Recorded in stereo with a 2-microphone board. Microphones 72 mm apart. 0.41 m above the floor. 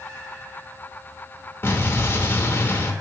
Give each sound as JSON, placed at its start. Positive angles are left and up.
{"t": 1.6, "sound": "an explosion", "side_deg": 35, "distance_m": 0.6}